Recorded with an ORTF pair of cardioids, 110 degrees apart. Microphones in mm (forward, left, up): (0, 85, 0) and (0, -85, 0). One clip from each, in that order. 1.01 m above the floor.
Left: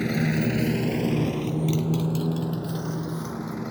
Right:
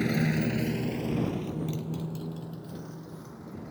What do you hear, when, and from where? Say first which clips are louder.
0.0 s a motorcycle: left 3 dB; 5° left; by 3.7 s 75° left